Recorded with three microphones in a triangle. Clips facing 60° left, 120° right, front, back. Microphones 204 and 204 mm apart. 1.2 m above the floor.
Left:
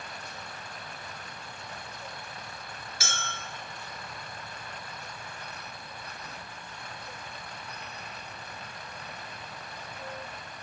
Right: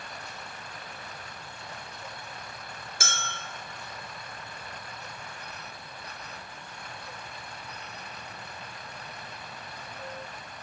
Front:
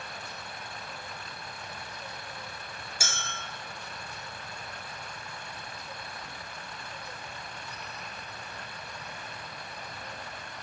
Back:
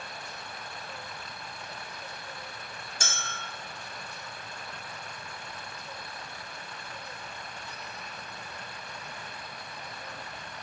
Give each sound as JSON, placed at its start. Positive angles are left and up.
{"t": 3.0, "sound": "a clink", "azimuth_deg": -80, "distance_m": 0.6}